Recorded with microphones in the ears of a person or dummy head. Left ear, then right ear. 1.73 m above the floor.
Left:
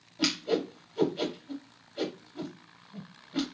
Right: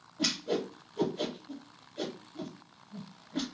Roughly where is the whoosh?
Left.